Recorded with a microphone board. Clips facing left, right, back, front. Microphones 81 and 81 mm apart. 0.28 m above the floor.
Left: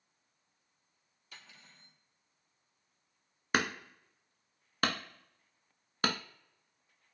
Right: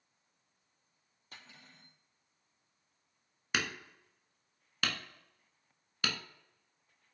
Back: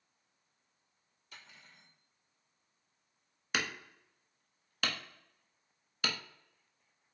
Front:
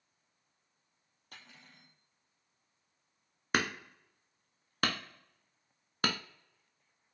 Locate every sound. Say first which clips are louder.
1.3 s cutlery clinking: right 1 dB, front 1 dB; 40° right, 5 m
3.5 s hammering: left 5 dB, front 5 dB; 45° left, 0.9 m